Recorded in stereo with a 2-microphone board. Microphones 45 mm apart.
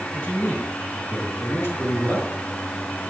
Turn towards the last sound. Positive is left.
turn(degrees=65)  # may be behind; listen again after turning